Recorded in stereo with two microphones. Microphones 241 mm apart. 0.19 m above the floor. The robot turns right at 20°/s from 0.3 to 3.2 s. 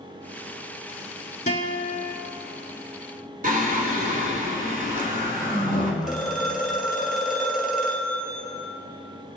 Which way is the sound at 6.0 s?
Centre (ahead or behind).